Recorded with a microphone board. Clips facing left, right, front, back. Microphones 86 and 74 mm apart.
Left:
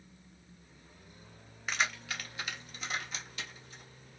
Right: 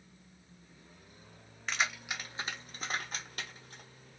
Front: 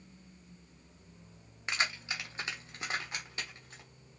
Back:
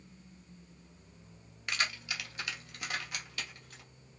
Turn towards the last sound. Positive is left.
turn(degrees=-65)